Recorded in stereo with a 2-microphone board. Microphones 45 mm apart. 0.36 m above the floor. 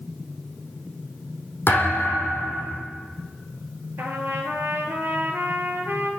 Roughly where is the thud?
Left.